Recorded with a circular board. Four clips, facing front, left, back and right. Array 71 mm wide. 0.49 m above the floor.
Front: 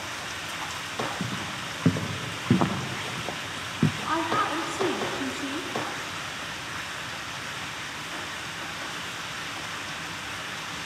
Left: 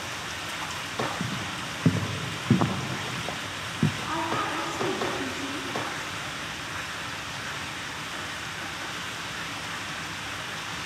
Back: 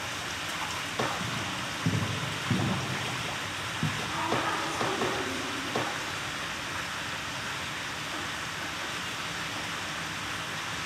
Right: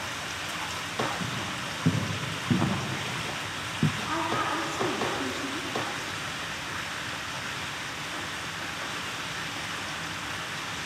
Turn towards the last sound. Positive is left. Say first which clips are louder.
# even, front 2 dB
turn(degrees=5)